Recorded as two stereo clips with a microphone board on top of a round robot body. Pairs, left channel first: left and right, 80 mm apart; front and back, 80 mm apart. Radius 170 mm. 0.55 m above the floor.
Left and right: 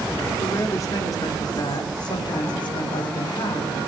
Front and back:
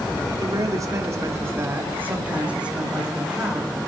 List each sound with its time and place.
0.4 s a woman speaking: 145° left, 3.5 m; by 3.7 s 95° left, 5.5 m